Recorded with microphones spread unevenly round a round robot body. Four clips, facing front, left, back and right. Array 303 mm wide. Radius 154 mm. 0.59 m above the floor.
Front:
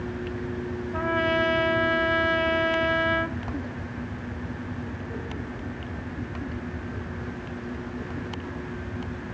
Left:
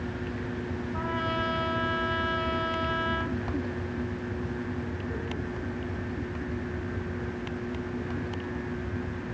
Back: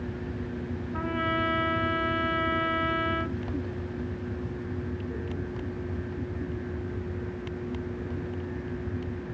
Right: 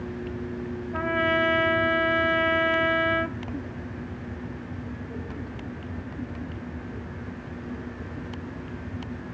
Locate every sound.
0.9 s a trumpet: 60° right, 1.5 m